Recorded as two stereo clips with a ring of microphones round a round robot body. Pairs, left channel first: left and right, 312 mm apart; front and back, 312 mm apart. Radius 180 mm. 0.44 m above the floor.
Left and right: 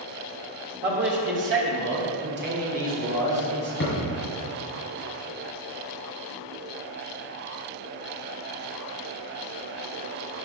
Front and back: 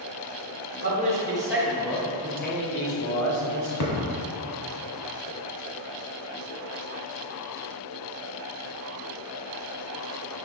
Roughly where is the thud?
Ahead left.